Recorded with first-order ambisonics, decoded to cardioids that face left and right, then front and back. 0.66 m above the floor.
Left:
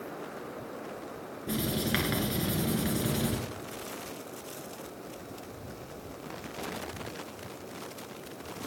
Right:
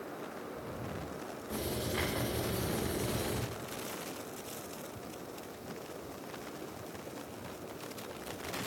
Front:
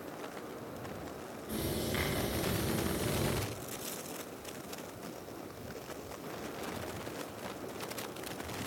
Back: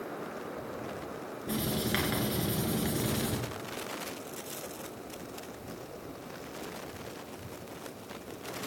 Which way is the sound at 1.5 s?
125° left.